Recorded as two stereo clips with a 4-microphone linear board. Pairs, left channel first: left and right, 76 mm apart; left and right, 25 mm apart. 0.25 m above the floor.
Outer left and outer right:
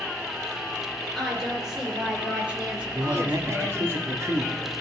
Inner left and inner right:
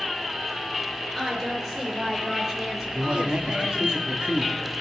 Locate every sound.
1.1 s a woman speaking: centre (ahead or behind), 4 m; by 3.9 s 30° right (ahead or behind), 4.5 m
2.9 s a man speaking: 45° right (ahead or behind), 1.4 m